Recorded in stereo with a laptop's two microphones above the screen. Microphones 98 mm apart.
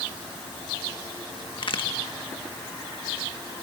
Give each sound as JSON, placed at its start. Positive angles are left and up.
{"t": 1.6, "sound": "a crack", "side_deg": 60, "distance_m": 1.6}